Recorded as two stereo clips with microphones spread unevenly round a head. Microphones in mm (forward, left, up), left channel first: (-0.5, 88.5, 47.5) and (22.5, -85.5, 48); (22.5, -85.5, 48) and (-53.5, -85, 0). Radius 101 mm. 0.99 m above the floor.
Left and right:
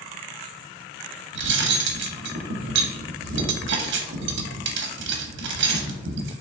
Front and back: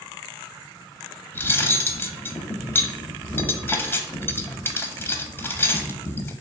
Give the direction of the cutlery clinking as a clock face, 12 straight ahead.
2 o'clock.